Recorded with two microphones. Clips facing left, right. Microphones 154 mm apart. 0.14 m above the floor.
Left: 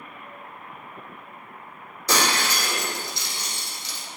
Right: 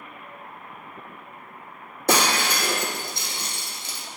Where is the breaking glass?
55° right (ahead or behind), 1.5 m.